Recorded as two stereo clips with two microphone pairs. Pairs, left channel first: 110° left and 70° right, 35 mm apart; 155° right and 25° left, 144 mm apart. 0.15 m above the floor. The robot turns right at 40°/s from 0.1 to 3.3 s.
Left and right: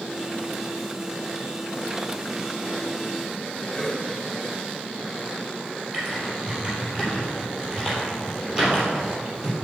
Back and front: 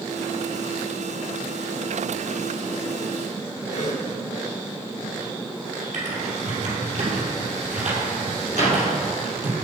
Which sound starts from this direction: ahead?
Typing on a keyboard, at 5.9 s.